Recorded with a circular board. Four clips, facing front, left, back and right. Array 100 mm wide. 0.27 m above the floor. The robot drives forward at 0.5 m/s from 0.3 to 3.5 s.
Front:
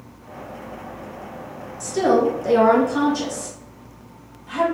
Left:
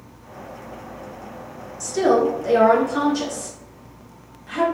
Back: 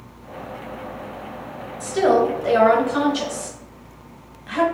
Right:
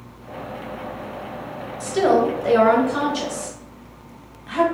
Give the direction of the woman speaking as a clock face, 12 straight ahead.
4 o'clock.